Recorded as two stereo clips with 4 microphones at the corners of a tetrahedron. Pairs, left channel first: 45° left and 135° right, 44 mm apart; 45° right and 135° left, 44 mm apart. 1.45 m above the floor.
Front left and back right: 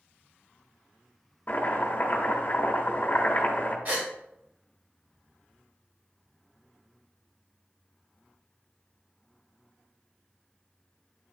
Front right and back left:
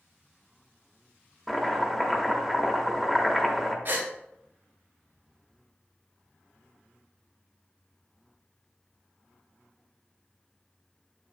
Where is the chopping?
40° left, 1.1 m.